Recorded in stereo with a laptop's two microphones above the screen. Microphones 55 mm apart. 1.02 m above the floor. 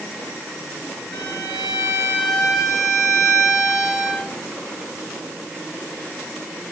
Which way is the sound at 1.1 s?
80° left.